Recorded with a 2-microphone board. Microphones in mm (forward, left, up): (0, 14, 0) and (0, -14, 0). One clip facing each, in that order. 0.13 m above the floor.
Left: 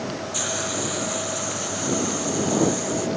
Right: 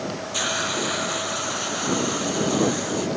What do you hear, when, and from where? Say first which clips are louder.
0.3 s a hiss: right 5 dB; 25° right (ahead or behind)